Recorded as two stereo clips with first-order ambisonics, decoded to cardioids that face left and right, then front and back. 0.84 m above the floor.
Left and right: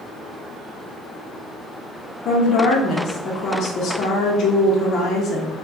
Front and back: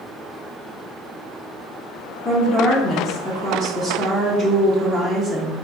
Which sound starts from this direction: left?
A woman speaking, at 2.2 s.